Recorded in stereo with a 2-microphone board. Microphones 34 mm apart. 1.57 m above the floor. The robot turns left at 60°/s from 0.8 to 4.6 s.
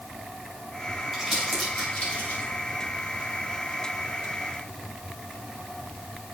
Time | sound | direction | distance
1.1 | crumpling | 5° right (ahead or behind) | 5.5 m